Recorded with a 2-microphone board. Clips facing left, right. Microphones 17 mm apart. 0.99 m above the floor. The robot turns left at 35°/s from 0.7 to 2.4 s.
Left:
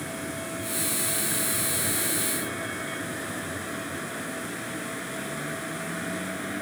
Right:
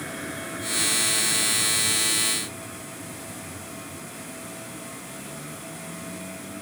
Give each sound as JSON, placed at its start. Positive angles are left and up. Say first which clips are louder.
{"t": 0.0, "sound": "a vehicle", "louder": "even", "azimuth_deg": -170}